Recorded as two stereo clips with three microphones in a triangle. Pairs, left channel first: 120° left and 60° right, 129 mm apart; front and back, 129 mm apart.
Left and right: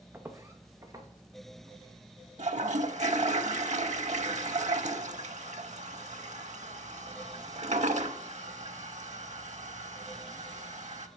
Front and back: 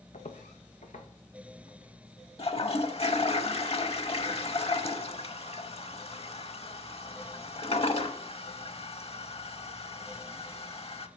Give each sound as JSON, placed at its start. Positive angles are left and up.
{"t": 0.1, "sound": "footsteps", "azimuth_deg": 10, "distance_m": 1.1}
{"t": 2.4, "sound": "a toilet flushing", "azimuth_deg": -40, "distance_m": 0.6}